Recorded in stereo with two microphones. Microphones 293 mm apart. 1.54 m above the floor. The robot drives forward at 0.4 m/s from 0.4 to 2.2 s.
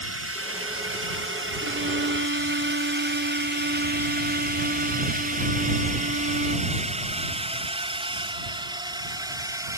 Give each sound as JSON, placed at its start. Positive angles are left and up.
{"t": 0.0, "sound": "a drone", "side_deg": -50}
{"t": 1.6, "sound": "a violin", "side_deg": -45}